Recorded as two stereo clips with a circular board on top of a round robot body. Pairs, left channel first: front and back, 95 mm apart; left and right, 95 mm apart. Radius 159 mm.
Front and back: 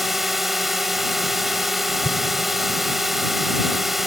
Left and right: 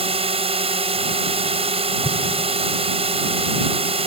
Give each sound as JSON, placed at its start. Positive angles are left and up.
{"t": 0.0, "sound": "a drone", "azimuth_deg": -90}
{"t": 2.0, "sound": "an explosion", "azimuth_deg": 30}